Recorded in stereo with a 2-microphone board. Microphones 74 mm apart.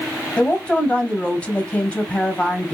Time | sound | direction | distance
0.4 | a woman speaking | 20° left (ahead or behind) | 2.5 m